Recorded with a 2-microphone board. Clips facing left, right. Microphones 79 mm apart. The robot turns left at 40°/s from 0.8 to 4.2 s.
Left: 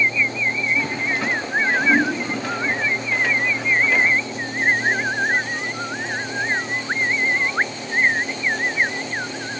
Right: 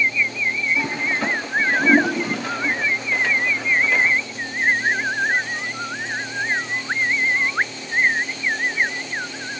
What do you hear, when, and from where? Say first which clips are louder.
0.8 s a toilet flushing: even; 20° right (ahead or behind), 0.9 m; by 2.8 s 70° right (ahead or behind), 0.9 m